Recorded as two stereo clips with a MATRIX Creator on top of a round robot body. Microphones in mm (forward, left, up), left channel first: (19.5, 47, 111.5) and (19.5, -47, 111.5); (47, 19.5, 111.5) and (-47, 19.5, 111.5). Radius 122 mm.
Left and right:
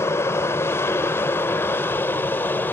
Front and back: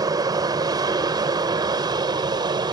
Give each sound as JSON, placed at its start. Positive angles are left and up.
{"t": 0.0, "sound": "an aircraft", "azimuth_deg": 145}